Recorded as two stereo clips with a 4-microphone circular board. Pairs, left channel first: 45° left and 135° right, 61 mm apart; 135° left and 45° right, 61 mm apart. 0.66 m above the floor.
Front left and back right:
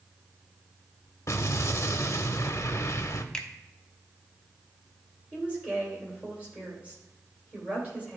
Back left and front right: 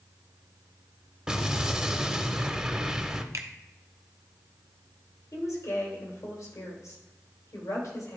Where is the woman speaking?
155° left, 3 m.